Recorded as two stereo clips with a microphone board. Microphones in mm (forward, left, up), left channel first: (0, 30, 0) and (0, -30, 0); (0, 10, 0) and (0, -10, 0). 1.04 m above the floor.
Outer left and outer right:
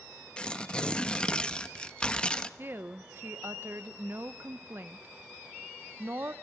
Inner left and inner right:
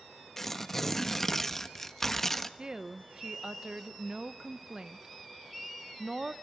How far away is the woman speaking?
About 0.8 m.